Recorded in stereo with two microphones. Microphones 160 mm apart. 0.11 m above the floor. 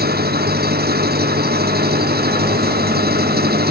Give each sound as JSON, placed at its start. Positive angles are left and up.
{"t": 0.0, "sound": "an engine running", "side_deg": -80}